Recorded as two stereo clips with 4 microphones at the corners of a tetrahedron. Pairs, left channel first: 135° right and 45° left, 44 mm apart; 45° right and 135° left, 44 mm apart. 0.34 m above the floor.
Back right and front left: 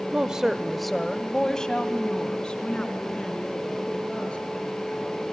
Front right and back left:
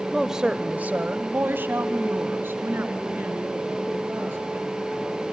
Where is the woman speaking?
50° left, 0.9 m; by 5.2 s 160° left, 6 m.